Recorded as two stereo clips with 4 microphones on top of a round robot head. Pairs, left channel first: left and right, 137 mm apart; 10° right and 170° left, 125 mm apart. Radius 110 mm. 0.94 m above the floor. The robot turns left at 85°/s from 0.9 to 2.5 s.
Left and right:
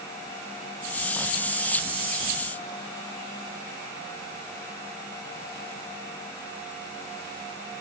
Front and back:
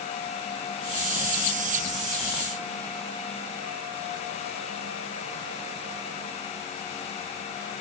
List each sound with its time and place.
Only background noise.